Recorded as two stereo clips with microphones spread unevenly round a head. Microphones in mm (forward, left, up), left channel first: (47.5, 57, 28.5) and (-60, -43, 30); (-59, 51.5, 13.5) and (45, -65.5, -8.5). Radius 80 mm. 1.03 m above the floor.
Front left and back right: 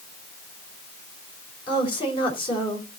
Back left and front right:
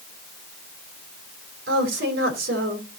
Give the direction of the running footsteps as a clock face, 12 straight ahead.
No running footsteps in this recording.